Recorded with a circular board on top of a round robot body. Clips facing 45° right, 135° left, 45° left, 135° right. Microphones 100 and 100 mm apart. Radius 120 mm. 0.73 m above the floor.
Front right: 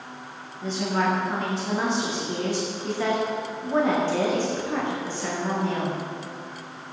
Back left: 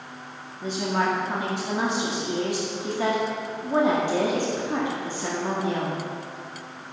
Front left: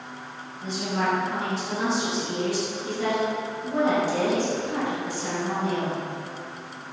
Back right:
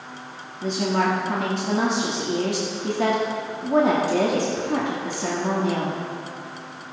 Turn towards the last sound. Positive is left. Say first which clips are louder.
# even, back right 5 dB
turn(degrees=-150)